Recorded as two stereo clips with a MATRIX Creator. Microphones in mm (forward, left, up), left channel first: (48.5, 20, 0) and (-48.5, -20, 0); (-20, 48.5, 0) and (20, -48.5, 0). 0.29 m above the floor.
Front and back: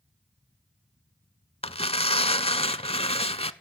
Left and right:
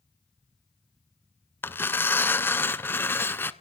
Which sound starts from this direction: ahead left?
Tearing paper, at 1.6 s.